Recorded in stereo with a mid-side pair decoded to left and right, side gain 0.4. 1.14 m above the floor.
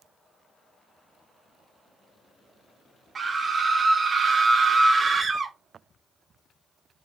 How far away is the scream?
About 0.6 m.